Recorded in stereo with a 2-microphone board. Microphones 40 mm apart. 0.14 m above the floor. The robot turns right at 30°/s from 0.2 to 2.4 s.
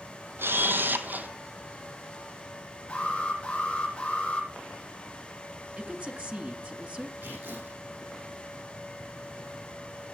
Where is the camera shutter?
70° right (ahead or behind), 1.1 m; by 1.3 s 45° right (ahead or behind), 1.1 m.